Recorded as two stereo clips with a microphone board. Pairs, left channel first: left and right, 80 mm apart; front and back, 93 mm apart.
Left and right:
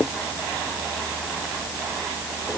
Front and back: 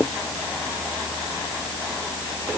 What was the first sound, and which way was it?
Only background noise.